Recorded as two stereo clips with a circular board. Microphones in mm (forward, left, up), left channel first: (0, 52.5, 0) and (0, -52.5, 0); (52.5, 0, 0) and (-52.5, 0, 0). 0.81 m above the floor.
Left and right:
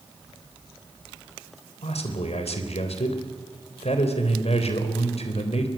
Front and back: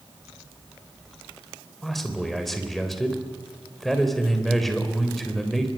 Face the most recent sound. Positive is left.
turn(degrees=90)